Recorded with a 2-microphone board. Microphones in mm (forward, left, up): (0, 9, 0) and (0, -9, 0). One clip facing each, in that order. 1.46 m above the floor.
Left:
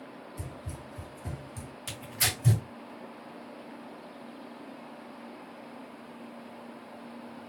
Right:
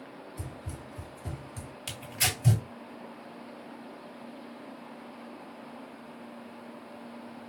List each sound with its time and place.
0.4 s running footsteps: 5° right (ahead or behind), 1.8 m
1.9 s tearing paper: 30° right (ahead or behind), 2 m